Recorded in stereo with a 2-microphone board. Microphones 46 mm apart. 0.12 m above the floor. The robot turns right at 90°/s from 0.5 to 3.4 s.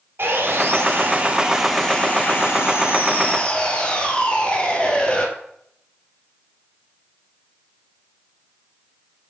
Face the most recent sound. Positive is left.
turn(degrees=150)